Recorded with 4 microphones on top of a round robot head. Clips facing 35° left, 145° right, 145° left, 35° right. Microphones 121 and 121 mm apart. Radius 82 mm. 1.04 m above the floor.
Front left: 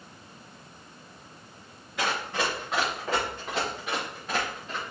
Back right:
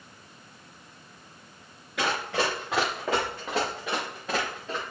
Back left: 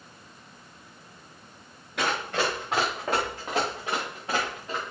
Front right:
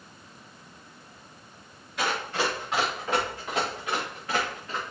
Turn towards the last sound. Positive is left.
turn(degrees=-140)